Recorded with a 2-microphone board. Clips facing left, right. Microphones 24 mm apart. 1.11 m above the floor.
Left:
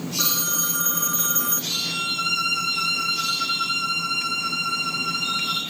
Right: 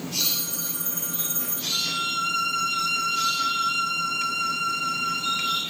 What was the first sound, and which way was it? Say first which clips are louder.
A phone ringing: left 4 dB; 50° left (ahead or behind).